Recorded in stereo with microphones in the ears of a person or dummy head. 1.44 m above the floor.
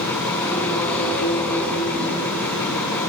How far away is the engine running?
About 3.5 m.